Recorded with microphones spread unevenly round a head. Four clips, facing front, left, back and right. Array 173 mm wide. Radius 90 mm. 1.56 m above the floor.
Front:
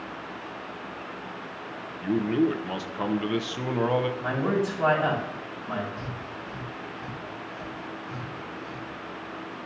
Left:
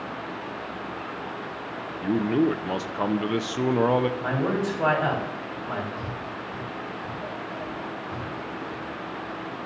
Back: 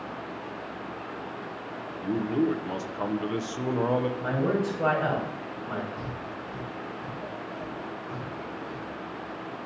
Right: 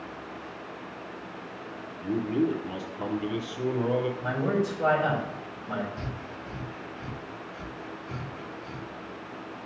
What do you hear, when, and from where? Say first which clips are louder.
2.0 s a man speaking: left 4 dB, front 2 dB; 70° left, 0.5 m
4.2 s a man speaking: left 2 dB, even; 80° left, 4.5 m
6.0 s breathing: left 4 dB, back 1 dB; 90° right, 0.6 m